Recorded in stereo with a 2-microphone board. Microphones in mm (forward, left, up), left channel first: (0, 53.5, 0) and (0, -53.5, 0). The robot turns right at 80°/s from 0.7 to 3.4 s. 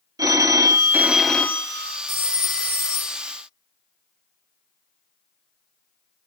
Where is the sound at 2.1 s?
30° right, 2 m; by 3.2 s 60° left, 2 m.